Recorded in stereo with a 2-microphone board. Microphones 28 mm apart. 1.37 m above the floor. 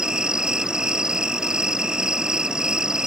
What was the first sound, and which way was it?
An insect, 30° right (ahead or behind).